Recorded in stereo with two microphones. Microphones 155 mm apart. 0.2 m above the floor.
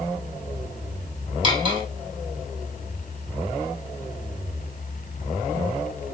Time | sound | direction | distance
1.4 | cutlery clinking | 35° right (ahead or behind) | 3.5 m